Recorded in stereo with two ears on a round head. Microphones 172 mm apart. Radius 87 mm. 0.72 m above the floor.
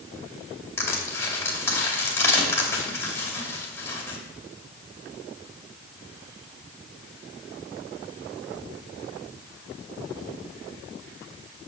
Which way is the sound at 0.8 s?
15° left (ahead or behind).